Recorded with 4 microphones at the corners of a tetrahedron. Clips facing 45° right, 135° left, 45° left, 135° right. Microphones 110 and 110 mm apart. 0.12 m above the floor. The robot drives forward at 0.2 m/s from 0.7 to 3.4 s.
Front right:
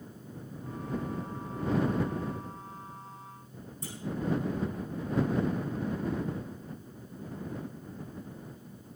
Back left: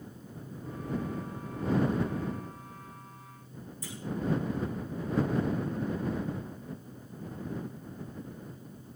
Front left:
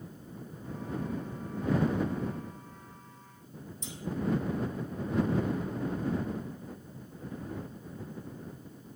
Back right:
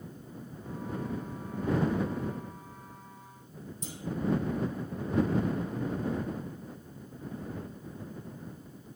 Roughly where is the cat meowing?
I don't hear a cat meowing.